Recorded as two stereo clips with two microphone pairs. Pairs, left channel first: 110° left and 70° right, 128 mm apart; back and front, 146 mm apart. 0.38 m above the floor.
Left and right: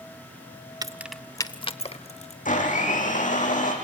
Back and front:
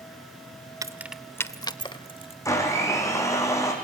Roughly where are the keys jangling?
Ahead right.